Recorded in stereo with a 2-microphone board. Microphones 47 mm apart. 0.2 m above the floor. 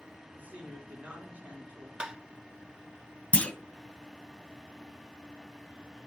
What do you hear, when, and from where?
0.3 s a woman speaking: 35° right (ahead or behind), 4 m
2.0 s tapping: 15° right (ahead or behind), 0.5 m
3.3 s a clunk: 25° left (ahead or behind), 0.5 m